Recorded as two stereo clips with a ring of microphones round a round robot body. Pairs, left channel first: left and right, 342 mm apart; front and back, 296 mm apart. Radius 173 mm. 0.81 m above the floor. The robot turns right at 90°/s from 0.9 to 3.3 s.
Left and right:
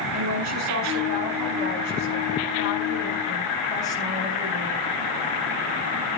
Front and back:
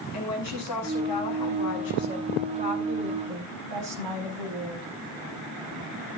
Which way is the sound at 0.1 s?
40° right.